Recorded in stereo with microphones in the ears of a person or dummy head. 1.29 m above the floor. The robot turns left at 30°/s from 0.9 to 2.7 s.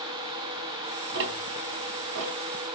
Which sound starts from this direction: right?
Ticking, at 1.1 s.